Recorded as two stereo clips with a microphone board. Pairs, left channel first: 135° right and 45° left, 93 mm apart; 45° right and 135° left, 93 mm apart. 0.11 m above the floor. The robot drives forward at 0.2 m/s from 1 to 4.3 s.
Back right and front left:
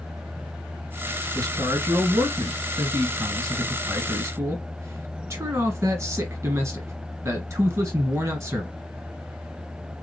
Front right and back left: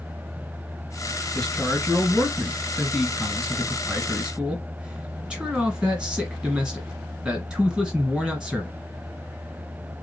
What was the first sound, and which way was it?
A man speaking, 35° left.